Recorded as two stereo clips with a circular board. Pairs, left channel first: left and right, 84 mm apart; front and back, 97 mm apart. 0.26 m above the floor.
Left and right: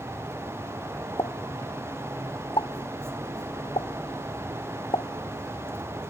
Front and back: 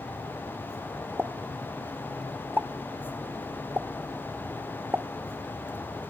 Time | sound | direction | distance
1.2 | a pop | 110° left | ?